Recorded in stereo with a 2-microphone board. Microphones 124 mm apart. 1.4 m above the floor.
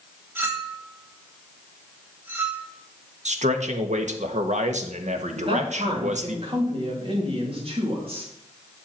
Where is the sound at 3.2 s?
70° right (ahead or behind), 1.3 m.